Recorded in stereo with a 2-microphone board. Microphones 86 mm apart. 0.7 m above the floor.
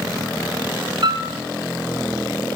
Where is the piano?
80° right, 0.8 m.